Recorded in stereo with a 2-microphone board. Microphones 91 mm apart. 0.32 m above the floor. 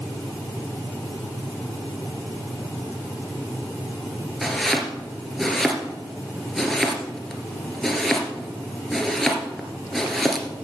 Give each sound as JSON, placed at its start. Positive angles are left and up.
{"t": 4.4, "sound": "chopping", "side_deg": 0, "distance_m": 2.0}